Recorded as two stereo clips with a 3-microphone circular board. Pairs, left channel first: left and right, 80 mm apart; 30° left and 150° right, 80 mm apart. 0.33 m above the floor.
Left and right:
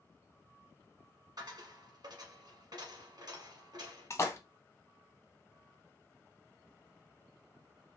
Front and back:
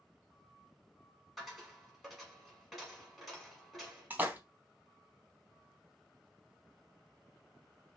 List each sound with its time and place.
1.4 s a dropped coin: 60° right, 1.5 m
4.1 s a splash: 145° left, 0.6 m